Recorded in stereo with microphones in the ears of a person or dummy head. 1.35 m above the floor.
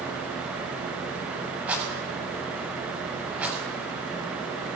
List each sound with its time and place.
1.7 s a rattle: 10° right (ahead or behind), 7 m